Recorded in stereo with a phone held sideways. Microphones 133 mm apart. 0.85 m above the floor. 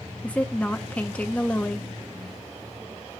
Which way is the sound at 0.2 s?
10° left (ahead or behind).